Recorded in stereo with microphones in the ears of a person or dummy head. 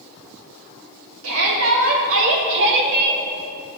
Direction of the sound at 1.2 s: 85° right.